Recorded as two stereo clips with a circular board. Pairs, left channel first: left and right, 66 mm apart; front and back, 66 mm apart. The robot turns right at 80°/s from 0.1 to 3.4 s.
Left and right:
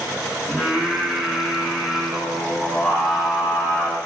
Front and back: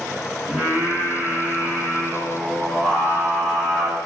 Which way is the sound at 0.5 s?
145° right.